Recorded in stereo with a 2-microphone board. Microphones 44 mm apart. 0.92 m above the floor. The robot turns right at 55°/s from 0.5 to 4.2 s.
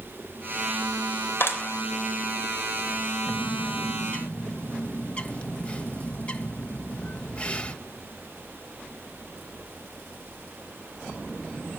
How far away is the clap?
About 3.5 m.